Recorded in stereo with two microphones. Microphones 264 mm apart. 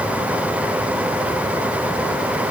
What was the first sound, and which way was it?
Only background noise.